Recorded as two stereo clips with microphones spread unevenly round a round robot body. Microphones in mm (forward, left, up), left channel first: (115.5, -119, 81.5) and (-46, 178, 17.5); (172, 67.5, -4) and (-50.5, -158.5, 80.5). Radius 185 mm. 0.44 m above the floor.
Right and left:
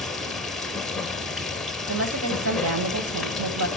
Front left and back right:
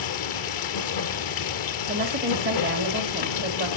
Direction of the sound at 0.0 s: 25° left.